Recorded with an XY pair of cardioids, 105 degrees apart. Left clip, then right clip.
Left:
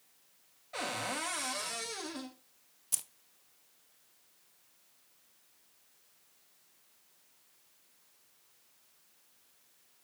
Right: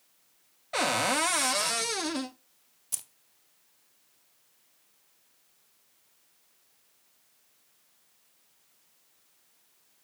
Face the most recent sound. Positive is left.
turn(degrees=5)